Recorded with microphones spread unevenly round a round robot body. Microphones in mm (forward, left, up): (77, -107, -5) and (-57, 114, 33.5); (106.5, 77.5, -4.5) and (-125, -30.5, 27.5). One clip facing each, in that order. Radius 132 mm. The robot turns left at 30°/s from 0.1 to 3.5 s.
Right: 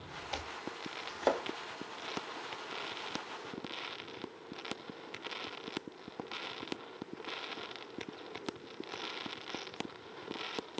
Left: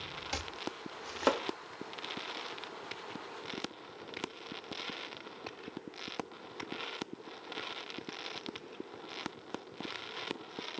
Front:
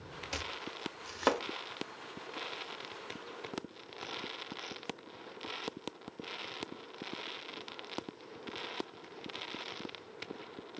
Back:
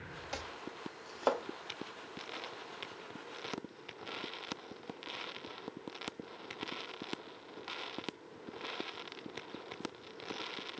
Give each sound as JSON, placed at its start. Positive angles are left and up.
{"t": 0.3, "sound": "chopping", "azimuth_deg": 100, "distance_m": 0.6}